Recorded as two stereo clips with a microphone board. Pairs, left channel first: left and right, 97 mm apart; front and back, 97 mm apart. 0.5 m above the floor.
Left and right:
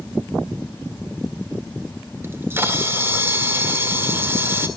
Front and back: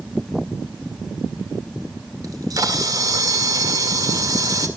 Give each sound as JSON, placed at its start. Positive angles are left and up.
{"t": 2.2, "sound": "a camera shutter", "azimuth_deg": -145, "distance_m": 1.8}